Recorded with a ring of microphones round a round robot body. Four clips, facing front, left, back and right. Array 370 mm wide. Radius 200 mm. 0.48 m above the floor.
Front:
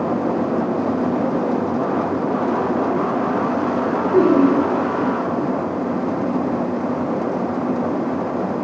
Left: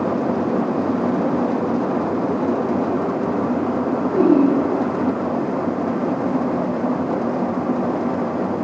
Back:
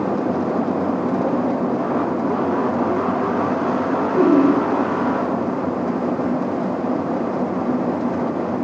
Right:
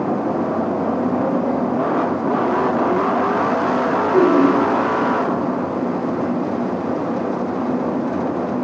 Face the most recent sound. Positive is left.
turn(degrees=-25)